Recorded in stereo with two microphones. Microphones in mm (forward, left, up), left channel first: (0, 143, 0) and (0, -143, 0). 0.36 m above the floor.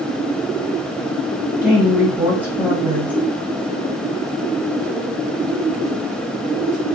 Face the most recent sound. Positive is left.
turn(degrees=-5)  # may be behind; listen again after turning